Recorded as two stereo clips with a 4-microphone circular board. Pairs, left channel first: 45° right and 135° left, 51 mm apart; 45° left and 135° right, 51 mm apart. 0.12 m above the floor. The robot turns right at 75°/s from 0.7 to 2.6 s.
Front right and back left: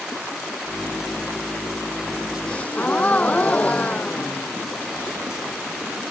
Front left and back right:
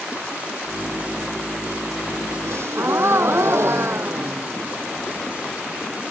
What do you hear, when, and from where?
2.5 s a gasp: 115° right; by 4.8 s 105° right